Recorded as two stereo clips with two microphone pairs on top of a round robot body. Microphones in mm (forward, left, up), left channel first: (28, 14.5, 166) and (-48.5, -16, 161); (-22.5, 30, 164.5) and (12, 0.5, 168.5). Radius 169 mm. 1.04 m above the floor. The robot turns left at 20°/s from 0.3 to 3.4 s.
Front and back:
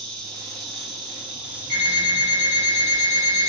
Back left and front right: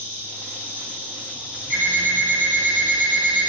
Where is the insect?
65° right, 1.5 m; by 3.5 s 125° right, 1.5 m.